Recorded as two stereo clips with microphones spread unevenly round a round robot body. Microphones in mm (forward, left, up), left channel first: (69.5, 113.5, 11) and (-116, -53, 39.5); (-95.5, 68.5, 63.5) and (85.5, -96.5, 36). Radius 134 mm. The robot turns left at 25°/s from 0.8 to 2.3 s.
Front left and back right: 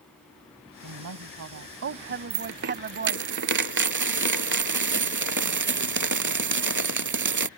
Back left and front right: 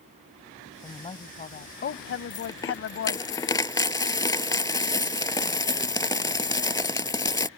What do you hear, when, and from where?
0.8 s a woman speaking: 150° right; by 3.3 s 175° left
2.3 s a dropped coin: 155° right